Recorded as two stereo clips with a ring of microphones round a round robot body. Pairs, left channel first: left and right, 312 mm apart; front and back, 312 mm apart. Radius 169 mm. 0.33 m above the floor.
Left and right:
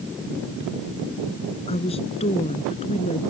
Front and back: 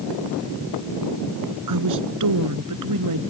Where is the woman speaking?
165° left.